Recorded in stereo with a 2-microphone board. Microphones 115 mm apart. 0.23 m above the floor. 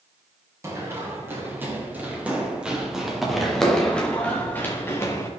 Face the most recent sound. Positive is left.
turn(degrees=30)  # may be behind; listen again after turning